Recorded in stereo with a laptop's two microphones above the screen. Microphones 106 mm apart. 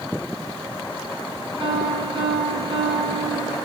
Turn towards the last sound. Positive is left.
turn(degrees=-50)  # may be behind; listen again after turning